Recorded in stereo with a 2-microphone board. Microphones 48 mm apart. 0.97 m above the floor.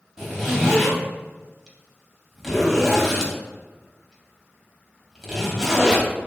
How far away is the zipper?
About 0.7 m.